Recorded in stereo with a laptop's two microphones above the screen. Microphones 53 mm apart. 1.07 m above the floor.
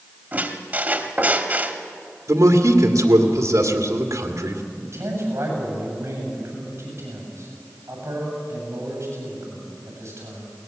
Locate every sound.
0.3 s a squeak: 30° right (ahead or behind), 1.2 m
2.3 s a man speaking: 75° right (ahead or behind), 2 m
4.8 s a man speaking: 55° right (ahead or behind), 8 m